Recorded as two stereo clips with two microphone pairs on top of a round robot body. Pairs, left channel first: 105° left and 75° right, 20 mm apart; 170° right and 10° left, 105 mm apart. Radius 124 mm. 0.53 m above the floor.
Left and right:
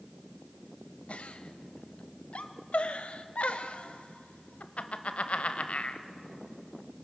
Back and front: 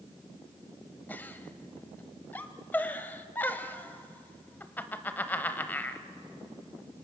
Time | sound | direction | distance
1.1 | a giggle | 115° left | 1.1 m